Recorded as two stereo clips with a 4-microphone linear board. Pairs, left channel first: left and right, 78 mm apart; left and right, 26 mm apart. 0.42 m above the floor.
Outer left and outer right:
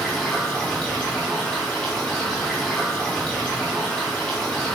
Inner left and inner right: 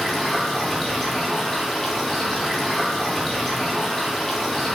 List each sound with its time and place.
0.0 s running water: 10° left (ahead or behind), 1.6 m